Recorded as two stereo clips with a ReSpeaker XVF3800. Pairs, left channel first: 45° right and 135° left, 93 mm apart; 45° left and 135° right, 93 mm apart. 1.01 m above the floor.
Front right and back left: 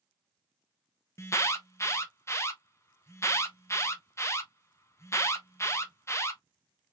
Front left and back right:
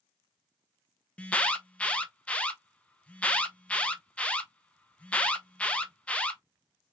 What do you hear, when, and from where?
1.2 s an alarm: 20° right, 0.6 m